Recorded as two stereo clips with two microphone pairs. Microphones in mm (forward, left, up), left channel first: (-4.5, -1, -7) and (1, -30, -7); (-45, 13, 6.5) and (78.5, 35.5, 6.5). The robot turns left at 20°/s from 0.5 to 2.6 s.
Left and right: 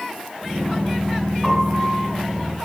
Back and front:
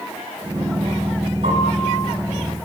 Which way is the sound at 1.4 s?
10° left.